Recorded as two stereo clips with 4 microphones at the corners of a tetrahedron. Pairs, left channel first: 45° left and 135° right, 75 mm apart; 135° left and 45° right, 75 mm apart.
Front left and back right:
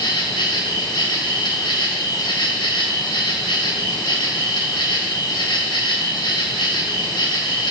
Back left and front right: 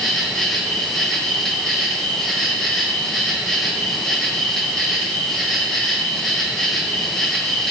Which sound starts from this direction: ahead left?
An insect, at 0.0 s.